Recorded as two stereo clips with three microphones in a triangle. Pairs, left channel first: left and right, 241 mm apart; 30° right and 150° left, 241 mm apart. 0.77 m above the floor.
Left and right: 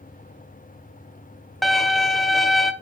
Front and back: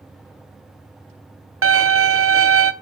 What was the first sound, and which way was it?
A violin, straight behind.